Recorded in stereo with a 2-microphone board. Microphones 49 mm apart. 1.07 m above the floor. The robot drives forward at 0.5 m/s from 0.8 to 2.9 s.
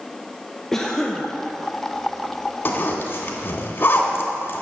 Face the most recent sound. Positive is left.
turn(degrees=50)  # may be behind; listen again after turning